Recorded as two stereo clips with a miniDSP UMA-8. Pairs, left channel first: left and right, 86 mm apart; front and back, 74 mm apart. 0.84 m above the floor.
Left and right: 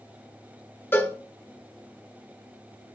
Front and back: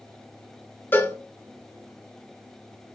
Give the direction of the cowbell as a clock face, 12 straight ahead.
11 o'clock.